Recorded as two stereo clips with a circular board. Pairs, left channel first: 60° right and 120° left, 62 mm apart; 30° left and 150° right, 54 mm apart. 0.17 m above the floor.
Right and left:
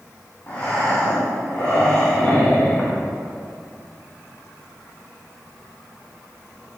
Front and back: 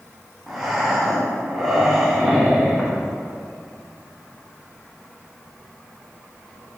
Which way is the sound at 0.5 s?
65° right.